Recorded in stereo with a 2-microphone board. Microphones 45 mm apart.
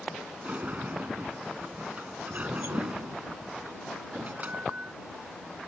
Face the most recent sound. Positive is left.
turn(degrees=-40)  # may be behind; listen again after turning